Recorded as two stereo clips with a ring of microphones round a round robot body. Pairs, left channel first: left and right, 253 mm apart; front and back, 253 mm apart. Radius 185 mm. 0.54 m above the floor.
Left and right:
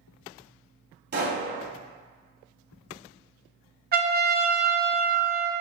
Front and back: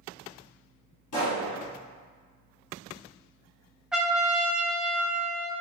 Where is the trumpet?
95° right, 0.6 m.